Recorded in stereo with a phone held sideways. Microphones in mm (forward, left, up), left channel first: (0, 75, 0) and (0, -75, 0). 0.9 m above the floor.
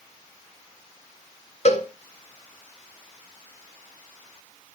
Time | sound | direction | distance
1.6 | a cowbell | 50° left (ahead or behind) | 1.6 m